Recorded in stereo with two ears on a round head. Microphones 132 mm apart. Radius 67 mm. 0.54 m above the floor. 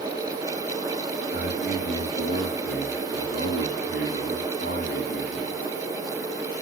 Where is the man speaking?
80° left, 6.5 m.